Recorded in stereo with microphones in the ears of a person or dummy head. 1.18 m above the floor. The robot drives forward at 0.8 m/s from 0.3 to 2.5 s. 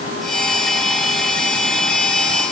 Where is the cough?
I don't hear a cough.